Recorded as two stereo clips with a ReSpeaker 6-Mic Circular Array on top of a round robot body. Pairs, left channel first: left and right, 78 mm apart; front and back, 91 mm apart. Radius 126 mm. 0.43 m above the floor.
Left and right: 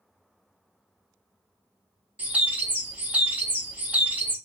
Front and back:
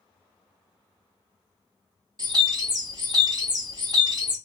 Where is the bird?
155° right, 1.2 m.